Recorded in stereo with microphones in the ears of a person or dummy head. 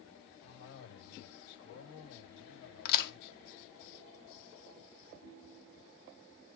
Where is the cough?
80° left, 7 m.